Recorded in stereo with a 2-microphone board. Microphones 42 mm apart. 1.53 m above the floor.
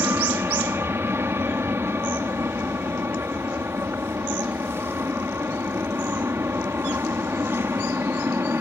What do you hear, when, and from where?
0.0 s an aircraft: 65° right (ahead or behind)